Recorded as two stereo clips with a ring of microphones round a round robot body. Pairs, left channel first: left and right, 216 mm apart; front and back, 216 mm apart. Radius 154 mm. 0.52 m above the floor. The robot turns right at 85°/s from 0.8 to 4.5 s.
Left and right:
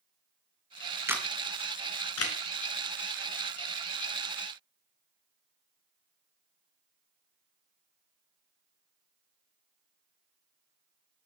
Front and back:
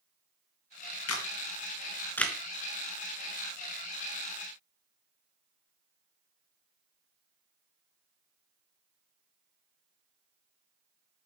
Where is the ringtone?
I don't hear a ringtone.